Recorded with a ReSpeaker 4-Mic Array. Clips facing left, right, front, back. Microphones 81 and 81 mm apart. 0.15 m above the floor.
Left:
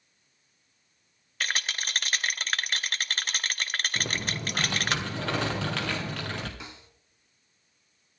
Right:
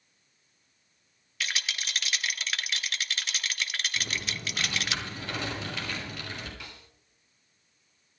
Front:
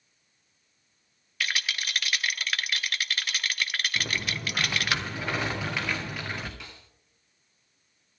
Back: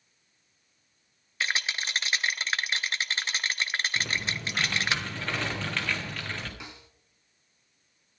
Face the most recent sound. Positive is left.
turn(degrees=130)